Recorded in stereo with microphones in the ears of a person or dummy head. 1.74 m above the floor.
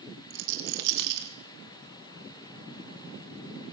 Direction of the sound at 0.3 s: 60° right (ahead or behind).